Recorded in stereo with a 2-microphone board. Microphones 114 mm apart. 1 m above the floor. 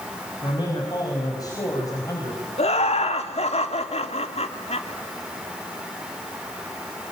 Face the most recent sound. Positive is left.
turn(degrees=65)  # may be behind; listen again after turning